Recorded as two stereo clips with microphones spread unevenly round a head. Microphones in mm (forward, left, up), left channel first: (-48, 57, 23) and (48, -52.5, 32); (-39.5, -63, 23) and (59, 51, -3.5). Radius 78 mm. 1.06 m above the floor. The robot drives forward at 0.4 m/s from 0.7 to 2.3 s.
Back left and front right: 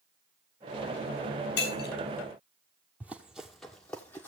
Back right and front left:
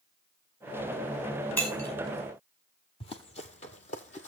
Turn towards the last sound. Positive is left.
turn(degrees=-150)